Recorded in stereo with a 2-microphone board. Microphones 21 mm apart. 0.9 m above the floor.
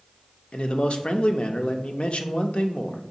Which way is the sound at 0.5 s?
55° left (ahead or behind).